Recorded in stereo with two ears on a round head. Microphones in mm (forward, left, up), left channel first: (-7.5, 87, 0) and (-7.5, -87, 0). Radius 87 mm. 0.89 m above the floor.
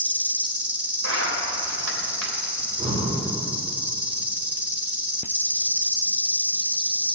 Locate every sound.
0.0 s an insect: 10° right (ahead or behind), 1.3 m
1.0 s a zipper: 85° right, 3 m
2.6 s breathing: 30° right (ahead or behind), 2.5 m